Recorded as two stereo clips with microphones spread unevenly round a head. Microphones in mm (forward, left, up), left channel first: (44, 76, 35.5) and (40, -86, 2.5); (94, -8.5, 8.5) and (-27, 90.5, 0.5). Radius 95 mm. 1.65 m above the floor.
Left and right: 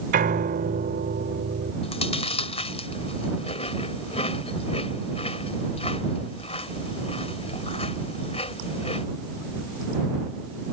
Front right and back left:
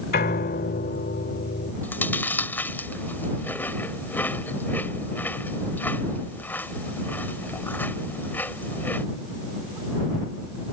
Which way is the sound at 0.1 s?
55° right.